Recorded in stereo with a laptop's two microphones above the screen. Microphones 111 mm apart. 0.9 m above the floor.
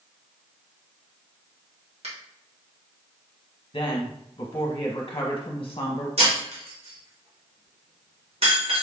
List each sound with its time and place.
2.0 s a finger snap: 70° right (ahead or behind), 1.5 m
3.7 s a woman speaking: 50° left (ahead or behind), 0.8 m
6.2 s breaking glass: 65° right (ahead or behind), 1.9 m